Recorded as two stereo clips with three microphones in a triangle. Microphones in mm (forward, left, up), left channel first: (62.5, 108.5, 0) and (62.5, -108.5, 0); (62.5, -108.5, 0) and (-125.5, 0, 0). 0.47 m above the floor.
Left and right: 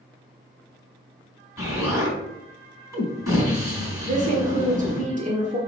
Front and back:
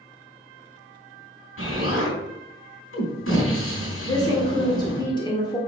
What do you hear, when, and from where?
1.6 s an explosion: 15° right, 3.5 m
4.0 s a woman speaking: 85° right, 1.4 m